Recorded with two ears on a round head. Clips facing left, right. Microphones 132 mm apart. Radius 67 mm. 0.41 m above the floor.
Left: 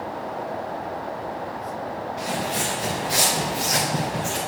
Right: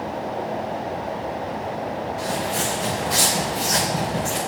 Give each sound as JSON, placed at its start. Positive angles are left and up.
{"t": 2.2, "sound": "footsteps", "side_deg": 30, "distance_m": 4.0}